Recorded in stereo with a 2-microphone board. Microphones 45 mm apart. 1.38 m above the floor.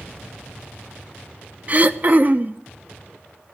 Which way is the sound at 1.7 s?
35° right (ahead or behind).